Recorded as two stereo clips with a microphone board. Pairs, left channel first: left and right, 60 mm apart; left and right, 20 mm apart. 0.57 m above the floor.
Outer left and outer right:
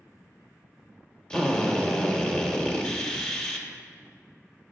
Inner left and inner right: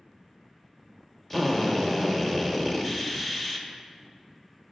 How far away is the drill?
About 0.9 m.